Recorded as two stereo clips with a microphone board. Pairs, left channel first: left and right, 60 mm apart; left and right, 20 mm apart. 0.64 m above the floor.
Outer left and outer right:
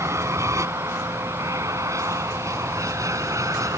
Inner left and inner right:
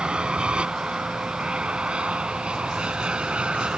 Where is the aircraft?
55° right (ahead or behind); by 3.8 s 65° right (ahead or behind).